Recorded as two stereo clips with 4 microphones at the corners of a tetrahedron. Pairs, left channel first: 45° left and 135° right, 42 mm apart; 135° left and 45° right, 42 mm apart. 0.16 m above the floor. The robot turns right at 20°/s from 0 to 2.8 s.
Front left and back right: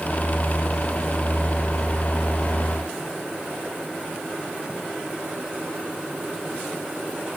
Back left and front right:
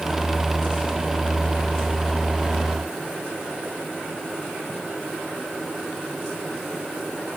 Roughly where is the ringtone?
I don't hear a ringtone.